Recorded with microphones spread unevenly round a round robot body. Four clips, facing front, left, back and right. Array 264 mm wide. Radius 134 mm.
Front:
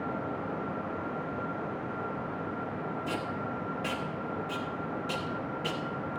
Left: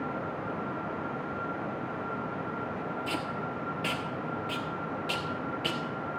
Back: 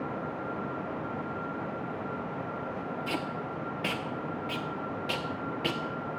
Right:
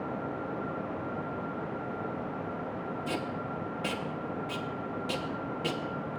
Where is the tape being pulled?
160° right, 1.2 m.